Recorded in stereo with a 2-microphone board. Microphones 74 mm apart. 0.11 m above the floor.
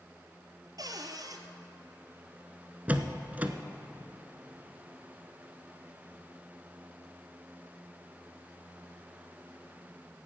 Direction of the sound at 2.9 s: 20° right (ahead or behind).